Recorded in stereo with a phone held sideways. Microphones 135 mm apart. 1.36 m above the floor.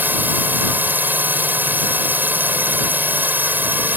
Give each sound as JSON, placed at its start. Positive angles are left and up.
{"t": 0.0, "sound": "a drone", "side_deg": -15}